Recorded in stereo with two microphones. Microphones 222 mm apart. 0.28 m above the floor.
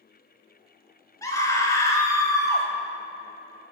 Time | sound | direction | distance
1.2 | a scream | 15° left (ahead or behind) | 1.2 m